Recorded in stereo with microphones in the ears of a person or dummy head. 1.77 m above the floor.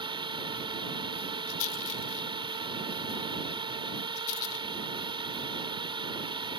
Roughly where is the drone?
Right.